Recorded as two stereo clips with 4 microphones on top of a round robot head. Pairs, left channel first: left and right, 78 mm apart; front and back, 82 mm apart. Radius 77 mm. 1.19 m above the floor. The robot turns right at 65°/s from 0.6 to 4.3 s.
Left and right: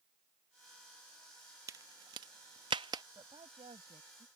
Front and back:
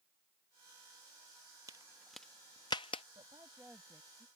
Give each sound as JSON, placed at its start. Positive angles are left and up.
{"t": 1.7, "sound": "a crack", "azimuth_deg": -120}
{"t": 3.1, "sound": "a woman speaking", "azimuth_deg": -135}